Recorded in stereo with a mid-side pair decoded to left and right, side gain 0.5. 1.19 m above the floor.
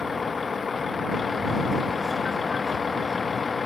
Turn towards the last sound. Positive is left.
turn(degrees=30)